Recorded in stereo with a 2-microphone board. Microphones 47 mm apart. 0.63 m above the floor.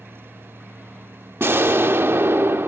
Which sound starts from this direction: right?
An explosion, at 1.4 s.